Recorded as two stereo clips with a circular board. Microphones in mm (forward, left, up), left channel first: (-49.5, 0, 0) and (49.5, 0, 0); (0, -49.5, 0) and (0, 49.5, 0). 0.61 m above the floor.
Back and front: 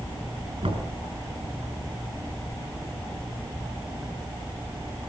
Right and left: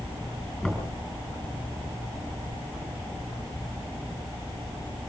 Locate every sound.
0.6 s knocking: 10° right, 5 m